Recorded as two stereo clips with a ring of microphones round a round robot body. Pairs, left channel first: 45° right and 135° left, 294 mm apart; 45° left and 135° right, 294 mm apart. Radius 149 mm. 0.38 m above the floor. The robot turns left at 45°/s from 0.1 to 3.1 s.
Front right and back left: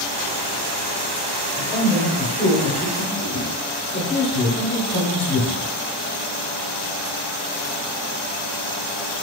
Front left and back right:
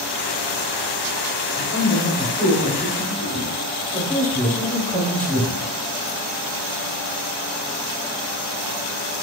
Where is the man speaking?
45° left, 1.0 m; by 5.7 s 25° right, 1.0 m.